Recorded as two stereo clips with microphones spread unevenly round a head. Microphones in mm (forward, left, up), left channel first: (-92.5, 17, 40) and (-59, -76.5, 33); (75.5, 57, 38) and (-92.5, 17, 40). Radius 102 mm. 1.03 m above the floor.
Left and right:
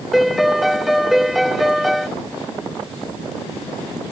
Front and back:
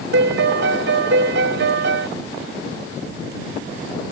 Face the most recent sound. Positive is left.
turn(degrees=-160)